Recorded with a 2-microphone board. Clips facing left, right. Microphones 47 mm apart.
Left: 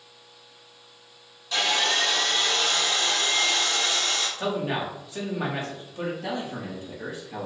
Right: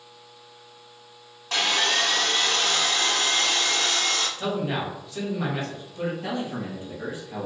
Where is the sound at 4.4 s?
20° left (ahead or behind), 1.4 m.